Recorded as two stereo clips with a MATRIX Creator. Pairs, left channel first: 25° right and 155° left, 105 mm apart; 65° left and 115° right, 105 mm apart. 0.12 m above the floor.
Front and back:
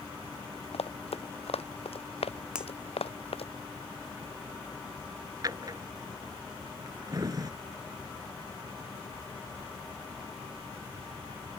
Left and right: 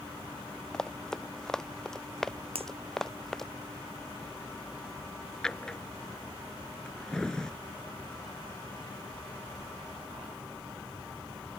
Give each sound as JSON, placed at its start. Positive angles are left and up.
{"t": 0.7, "sound": "running footsteps", "azimuth_deg": -15}
{"t": 2.5, "sound": "a finger snap", "azimuth_deg": -120}
{"t": 5.4, "sound": "a drawer", "azimuth_deg": 145}